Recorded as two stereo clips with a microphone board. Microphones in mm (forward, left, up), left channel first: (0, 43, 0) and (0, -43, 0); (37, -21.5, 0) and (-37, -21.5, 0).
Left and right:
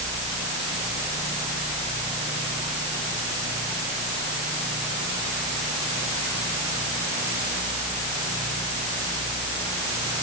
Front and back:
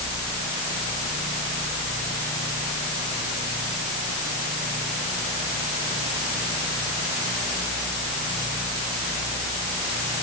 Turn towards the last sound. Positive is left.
No sound to turn to.